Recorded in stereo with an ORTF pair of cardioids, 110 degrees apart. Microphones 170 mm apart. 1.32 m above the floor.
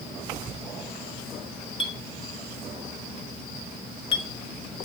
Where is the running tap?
No running tap in this recording.